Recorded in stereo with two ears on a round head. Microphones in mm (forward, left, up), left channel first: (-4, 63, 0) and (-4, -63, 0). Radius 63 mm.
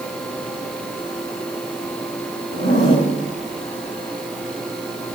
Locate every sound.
2.5 s a zipper: 60° left (ahead or behind), 3 m